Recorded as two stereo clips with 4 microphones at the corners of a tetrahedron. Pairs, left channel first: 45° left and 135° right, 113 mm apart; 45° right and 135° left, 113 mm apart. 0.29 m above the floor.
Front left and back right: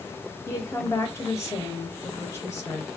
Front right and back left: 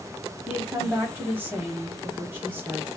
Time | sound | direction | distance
0.5 | a woman speaking | 80° left | 1.0 m